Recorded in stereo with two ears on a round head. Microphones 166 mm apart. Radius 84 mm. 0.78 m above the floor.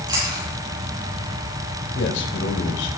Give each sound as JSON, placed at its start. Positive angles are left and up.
{"t": 0.1, "sound": "chewing", "side_deg": -25, "distance_m": 7.5}
{"t": 1.9, "sound": "a man speaking", "side_deg": 70, "distance_m": 3.5}